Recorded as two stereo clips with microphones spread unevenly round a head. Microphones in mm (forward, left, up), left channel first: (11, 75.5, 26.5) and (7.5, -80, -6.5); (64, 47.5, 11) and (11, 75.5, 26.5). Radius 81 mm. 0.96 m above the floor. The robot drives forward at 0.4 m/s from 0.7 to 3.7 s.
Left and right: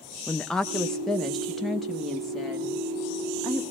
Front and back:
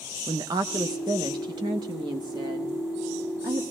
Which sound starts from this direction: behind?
A woman speaking, at 0.3 s.